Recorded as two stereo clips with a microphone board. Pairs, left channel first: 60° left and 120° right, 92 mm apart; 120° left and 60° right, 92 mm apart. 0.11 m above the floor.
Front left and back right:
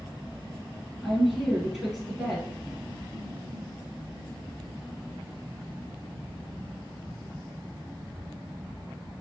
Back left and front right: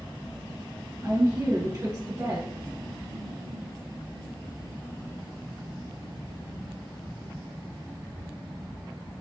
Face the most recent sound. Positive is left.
turn(degrees=-30)